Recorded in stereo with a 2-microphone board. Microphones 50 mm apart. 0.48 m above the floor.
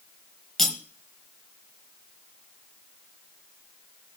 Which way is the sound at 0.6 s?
Centre (ahead or behind).